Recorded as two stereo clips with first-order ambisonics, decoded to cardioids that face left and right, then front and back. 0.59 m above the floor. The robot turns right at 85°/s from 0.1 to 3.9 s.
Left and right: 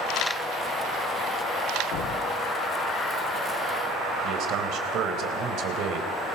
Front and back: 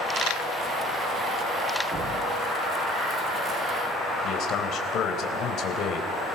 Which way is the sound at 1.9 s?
110° left.